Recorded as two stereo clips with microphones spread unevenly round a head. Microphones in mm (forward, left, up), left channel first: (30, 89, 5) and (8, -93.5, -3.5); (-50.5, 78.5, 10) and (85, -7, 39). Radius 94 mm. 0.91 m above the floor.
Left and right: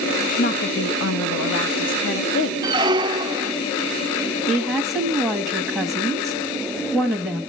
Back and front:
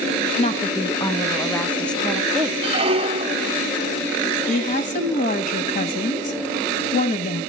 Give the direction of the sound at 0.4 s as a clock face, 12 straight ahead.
8 o'clock.